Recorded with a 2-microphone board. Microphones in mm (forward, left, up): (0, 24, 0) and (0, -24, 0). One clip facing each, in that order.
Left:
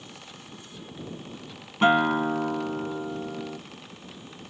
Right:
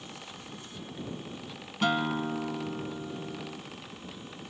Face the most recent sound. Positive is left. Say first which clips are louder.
# left 8 dB
turn(degrees=35)  # may be behind; listen again after turning